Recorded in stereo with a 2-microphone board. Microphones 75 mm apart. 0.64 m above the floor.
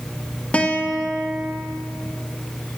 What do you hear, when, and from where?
0.5 s a guitar: 15° left (ahead or behind), 1.1 m